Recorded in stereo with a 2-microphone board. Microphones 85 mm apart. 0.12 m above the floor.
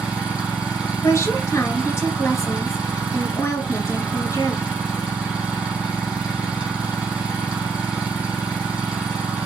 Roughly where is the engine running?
Centre.